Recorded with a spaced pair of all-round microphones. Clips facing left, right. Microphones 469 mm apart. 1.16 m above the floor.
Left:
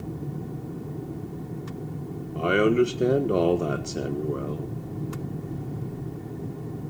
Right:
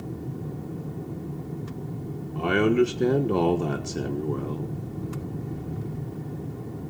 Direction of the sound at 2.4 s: 10° right (ahead or behind).